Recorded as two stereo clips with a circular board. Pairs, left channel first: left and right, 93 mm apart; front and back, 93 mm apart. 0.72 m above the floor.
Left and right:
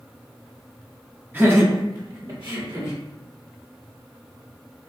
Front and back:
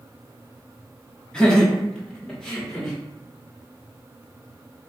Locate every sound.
1.3 s laughter: 65° right, 1.1 m; by 3.0 s 80° right, 2 m